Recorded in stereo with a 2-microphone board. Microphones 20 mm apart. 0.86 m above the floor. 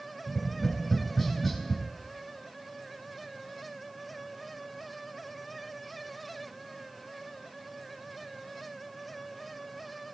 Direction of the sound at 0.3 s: 5° left (ahead or behind).